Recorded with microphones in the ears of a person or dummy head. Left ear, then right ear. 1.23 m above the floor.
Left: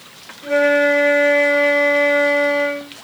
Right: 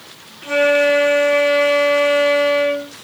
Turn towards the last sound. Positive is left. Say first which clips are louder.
# even
turn(degrees=-50)  # may be behind; listen again after turning